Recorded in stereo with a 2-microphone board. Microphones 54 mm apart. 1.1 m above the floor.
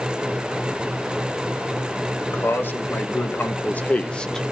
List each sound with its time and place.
2.2 s a man speaking: 50° left (ahead or behind), 2.0 m; by 4.5 s 5° left (ahead or behind), 0.9 m